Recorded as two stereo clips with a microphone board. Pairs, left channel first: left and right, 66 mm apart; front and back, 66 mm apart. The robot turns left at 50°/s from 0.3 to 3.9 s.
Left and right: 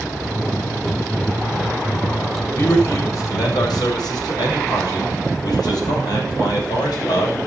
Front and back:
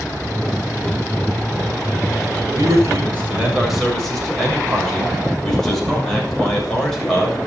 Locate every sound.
2.5 s a man speaking: 150° left, 7.5 m; by 7.4 s 85° left, 7.5 m